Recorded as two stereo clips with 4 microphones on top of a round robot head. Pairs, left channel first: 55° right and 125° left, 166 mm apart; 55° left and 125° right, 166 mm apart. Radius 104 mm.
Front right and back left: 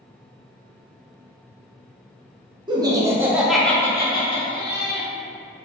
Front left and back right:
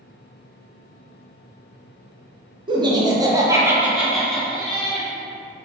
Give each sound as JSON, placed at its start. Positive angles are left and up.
{"t": 2.7, "sound": "laughter", "azimuth_deg": 180, "distance_m": 0.8}